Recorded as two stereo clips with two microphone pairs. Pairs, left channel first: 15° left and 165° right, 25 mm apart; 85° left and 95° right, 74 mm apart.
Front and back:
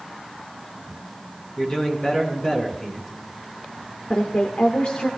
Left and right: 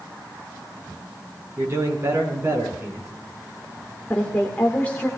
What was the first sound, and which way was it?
A man speaking, 40° right.